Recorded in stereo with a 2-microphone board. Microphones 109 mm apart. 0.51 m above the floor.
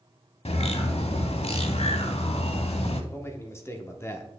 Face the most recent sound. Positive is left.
turn(degrees=25)  # may be behind; listen again after turning